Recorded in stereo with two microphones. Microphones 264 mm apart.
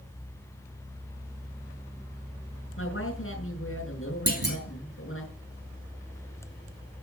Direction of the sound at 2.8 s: 55° left (ahead or behind).